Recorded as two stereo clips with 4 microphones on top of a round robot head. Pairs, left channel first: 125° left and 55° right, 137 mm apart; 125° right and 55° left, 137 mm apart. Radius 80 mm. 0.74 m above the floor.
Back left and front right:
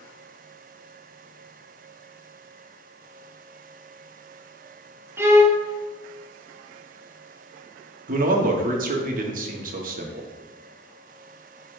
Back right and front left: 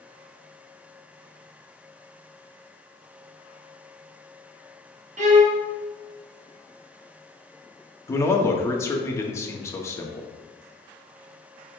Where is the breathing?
I don't hear breathing.